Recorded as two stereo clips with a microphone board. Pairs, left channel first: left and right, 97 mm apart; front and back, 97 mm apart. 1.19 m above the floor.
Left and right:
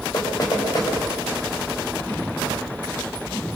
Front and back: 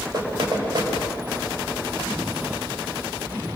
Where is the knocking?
140° left, 6 m.